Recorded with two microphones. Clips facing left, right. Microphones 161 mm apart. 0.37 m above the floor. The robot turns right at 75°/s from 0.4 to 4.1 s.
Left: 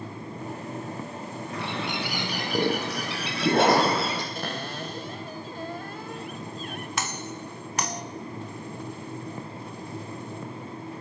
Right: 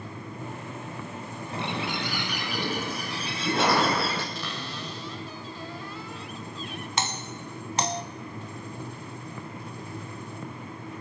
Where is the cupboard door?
50° left (ahead or behind), 1.9 m.